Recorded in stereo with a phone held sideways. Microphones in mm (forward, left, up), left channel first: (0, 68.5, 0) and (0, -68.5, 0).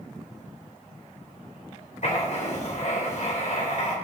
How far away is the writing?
About 3.5 m.